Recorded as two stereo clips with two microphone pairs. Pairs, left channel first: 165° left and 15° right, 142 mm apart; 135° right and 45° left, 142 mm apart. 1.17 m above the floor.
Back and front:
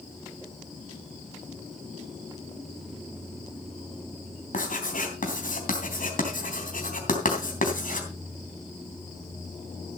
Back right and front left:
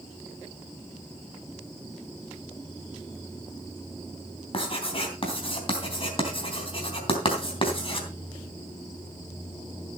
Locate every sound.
4.5 s writing: straight behind, 3 m